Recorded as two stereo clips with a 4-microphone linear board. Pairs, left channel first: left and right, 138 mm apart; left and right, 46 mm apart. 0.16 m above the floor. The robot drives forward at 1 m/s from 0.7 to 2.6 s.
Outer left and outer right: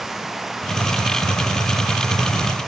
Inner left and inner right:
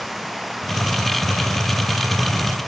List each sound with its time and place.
0.0 s running water: centre (ahead or behind)